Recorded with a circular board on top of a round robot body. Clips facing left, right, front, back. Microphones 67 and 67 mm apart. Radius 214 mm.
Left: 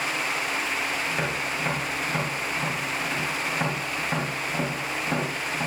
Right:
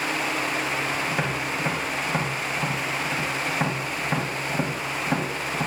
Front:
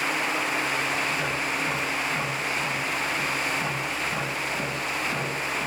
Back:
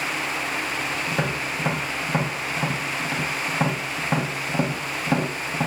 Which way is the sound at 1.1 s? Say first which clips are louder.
Right 1 dB, back 1 dB; 165° right.